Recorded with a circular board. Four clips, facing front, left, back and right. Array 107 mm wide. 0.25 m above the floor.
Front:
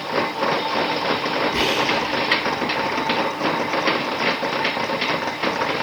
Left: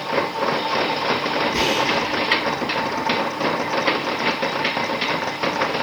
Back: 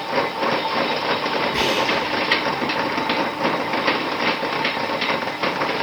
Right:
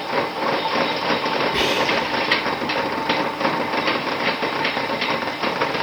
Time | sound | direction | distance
1.5 | whispering | 85° right | 0.9 m